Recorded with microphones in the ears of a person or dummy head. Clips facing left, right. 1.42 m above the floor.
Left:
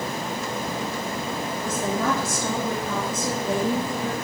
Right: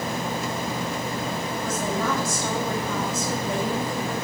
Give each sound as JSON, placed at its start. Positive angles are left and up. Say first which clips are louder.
{"t": 1.6, "sound": "a woman speaking", "louder": "left 2 dB", "side_deg": 50, "distance_m": 3.0}